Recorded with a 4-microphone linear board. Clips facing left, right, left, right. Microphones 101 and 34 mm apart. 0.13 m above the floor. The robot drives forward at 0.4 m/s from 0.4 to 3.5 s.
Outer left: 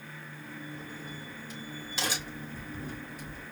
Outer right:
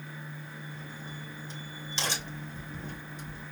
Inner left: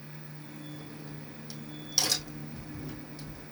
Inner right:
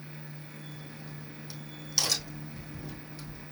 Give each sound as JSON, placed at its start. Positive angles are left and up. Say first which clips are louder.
{"t": 0.8, "sound": "a crack", "louder": "outer left 1 dB, inner left 1 dB", "side_deg": 10, "distance_m": 3.0}